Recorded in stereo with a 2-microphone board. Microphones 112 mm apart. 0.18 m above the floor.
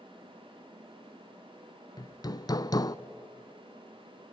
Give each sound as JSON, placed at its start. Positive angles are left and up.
{"t": 2.0, "sound": "hammering", "side_deg": 35, "distance_m": 0.5}